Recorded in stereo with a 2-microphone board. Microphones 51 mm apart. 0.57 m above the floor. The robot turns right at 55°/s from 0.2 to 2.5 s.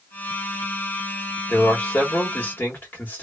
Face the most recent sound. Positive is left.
turn(degrees=90)